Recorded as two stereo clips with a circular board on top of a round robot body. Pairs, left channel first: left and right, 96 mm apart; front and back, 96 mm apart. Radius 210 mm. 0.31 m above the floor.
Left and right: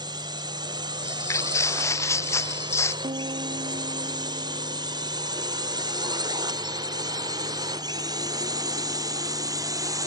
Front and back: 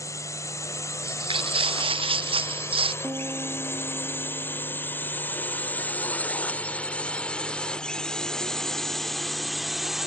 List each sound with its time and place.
0.0 s a drone: 55° right; by 10.1 s 95° right
1.0 s footsteps: 150° left; by 2.9 s 155° left
3.0 s a piano: 115° right